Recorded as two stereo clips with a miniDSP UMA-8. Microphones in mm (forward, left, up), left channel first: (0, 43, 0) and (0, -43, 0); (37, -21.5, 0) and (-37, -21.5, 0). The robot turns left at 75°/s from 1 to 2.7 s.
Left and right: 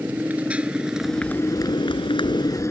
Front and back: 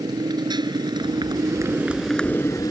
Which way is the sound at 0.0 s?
160° right.